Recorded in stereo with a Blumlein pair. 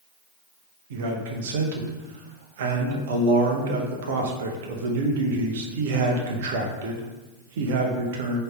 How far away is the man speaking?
About 0.8 m.